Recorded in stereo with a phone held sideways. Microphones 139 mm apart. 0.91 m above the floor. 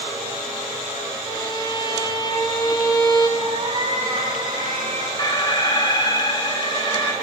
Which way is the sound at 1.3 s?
30° left (ahead or behind).